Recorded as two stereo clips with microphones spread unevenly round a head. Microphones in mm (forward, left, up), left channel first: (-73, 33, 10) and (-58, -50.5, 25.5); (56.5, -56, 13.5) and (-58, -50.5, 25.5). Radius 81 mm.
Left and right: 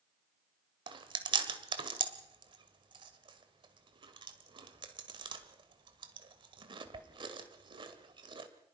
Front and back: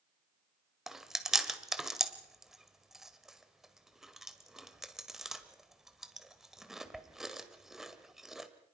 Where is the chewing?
100° right, 2.0 m.